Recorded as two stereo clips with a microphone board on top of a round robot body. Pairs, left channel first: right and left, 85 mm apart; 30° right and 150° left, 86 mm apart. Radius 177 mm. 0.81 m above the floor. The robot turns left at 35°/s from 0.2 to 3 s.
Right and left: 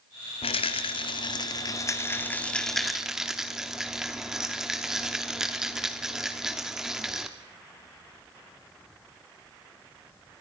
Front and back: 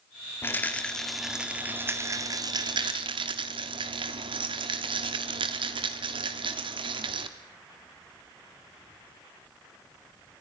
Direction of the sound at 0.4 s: 95° right.